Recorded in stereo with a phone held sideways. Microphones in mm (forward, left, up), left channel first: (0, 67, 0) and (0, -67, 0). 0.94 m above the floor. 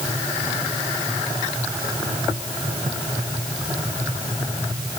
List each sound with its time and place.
Only background noise.